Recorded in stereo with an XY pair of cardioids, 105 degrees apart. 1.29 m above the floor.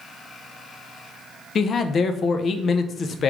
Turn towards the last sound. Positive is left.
turn(degrees=50)